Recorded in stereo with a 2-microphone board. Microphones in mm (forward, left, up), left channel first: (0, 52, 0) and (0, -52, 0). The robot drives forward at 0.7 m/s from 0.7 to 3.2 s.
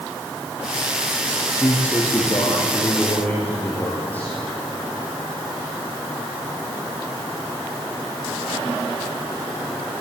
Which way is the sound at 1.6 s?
15° left (ahead or behind).